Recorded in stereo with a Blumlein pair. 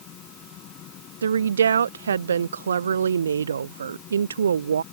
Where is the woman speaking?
65° right.